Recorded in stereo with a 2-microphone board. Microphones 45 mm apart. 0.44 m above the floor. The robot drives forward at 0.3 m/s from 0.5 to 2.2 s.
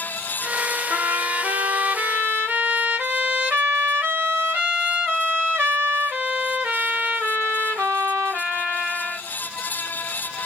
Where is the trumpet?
40° right (ahead or behind), 1.5 m.